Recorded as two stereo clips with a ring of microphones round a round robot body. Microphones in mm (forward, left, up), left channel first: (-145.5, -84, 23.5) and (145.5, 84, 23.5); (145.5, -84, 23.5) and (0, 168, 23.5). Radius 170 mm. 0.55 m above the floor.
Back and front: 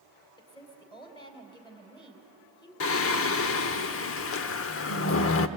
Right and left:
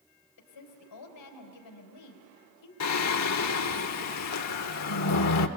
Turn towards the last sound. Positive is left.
turn(degrees=-100)